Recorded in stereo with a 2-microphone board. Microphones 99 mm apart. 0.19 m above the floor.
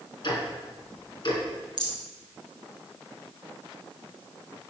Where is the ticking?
55° left (ahead or behind), 2 m.